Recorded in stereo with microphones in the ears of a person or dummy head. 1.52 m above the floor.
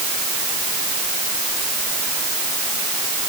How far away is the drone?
No drone in this recording.